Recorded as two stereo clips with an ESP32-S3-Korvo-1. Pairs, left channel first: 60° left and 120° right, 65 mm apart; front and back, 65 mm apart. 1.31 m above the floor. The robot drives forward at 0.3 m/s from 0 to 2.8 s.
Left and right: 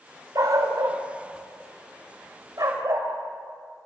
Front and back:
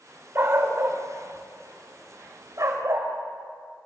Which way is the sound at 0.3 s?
135° right.